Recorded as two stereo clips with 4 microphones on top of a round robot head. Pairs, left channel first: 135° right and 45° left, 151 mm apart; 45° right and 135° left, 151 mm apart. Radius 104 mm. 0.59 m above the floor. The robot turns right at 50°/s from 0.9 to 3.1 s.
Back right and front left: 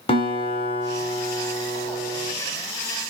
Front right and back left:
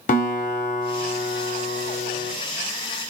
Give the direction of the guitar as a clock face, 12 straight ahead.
3 o'clock.